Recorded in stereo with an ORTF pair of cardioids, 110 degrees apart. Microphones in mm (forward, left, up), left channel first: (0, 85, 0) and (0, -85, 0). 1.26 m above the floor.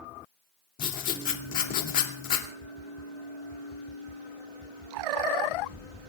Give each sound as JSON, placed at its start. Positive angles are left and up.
{"t": 0.8, "sound": "writing", "azimuth_deg": 55, "distance_m": 2.5}